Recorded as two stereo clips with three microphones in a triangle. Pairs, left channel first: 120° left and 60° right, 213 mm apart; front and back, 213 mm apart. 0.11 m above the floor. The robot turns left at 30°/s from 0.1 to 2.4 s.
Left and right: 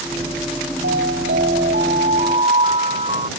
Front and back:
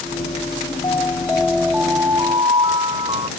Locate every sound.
0.8 s an alarm: 70° right; by 3.3 s 115° right